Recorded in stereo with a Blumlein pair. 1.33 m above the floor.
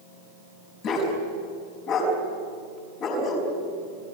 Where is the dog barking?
35° left, 5 m.